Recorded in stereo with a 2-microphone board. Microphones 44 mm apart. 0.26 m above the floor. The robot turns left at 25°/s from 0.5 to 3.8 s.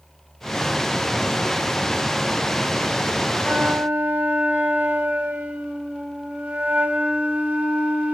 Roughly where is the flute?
Centre.